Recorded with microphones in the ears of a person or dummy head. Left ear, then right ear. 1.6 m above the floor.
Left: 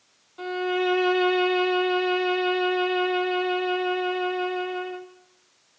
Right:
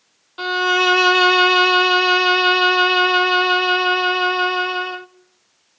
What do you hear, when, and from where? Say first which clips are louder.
0.4 s a violin: right 9 dB; 55° right (ahead or behind), 0.6 m